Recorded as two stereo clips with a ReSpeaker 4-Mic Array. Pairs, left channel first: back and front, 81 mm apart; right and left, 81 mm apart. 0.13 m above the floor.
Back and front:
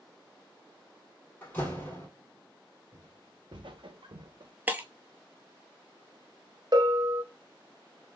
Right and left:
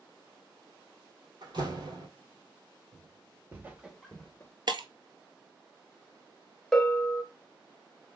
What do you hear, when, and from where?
1.4 s a door slam: 110° left, 2 m
2.9 s footsteps: 45° left, 1.6 m; by 4.5 s 30° right, 1.0 m
4.7 s breaking glass: 70° left, 0.7 m
6.7 s a bell: 10° right, 0.8 m